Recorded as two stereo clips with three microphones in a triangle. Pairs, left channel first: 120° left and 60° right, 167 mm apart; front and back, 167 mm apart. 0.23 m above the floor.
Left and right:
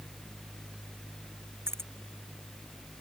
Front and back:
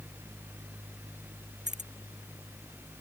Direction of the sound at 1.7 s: 135° right.